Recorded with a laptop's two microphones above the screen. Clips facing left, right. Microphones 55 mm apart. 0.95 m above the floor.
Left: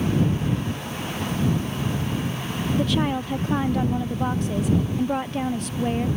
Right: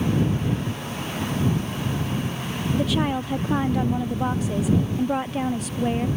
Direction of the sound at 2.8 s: Centre (ahead or behind).